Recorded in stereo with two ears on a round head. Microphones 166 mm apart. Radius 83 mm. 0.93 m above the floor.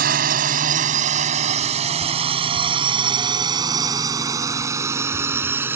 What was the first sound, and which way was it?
A drone, 55° right (ahead or behind).